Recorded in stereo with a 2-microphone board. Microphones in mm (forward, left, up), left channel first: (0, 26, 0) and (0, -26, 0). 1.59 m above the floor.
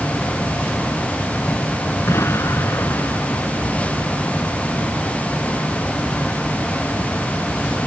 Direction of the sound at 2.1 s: 60° left (ahead or behind).